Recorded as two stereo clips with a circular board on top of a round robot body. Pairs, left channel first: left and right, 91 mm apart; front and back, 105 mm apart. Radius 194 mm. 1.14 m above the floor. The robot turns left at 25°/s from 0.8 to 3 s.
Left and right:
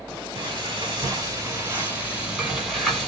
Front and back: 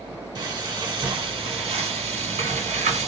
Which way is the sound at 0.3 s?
130° right.